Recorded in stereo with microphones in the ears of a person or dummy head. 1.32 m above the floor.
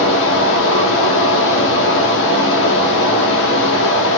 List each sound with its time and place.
0.0 s running water: 65° left (ahead or behind), 1.0 m